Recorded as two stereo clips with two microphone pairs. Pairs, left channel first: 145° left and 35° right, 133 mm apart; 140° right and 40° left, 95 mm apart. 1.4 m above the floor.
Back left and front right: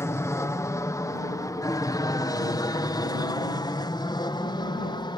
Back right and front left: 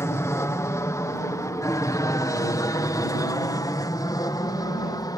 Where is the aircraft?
165° right; by 5.2 s 170° right.